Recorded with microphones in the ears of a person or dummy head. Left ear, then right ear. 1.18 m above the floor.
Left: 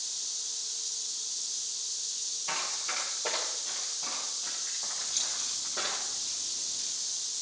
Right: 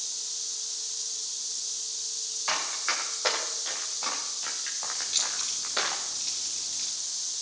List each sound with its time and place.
2.5 s running footsteps: 55° right (ahead or behind), 8.5 m; by 6.0 s 70° right (ahead or behind), 6.5 m
5.0 s keys jangling: 30° right (ahead or behind), 8.5 m